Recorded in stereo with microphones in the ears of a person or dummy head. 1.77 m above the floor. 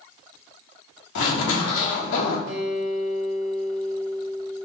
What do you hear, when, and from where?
1.1 s a zipper: 75° left (ahead or behind), 1.1 m
2.5 s a guitar: 55° right (ahead or behind), 1.4 m